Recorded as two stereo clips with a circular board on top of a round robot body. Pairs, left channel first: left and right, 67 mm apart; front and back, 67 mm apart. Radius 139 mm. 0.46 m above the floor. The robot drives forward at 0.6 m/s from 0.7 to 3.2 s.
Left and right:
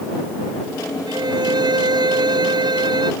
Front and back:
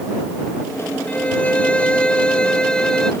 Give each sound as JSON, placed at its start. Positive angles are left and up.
{"t": 1.1, "sound": "a violin", "azimuth_deg": -70}